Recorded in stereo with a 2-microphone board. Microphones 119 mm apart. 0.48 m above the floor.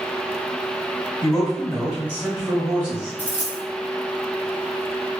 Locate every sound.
1.2 s a man speaking: 5° left (ahead or behind), 1.8 m; by 3.2 s 40° right (ahead or behind), 1.2 m
3.2 s a dropped coin: 15° right (ahead or behind), 1.3 m